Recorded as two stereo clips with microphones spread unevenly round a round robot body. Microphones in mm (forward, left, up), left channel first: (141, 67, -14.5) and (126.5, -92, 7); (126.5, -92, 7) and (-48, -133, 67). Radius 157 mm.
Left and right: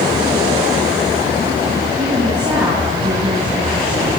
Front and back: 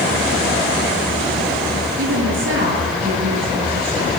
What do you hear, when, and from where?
2.0 s a woman speaking: 165° right, 7.5 m